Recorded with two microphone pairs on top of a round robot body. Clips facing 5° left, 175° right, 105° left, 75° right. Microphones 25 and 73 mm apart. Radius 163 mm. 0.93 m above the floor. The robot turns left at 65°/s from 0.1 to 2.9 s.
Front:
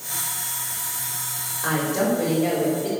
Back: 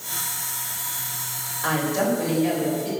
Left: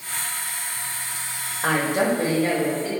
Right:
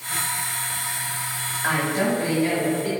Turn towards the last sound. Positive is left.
turn(degrees=15)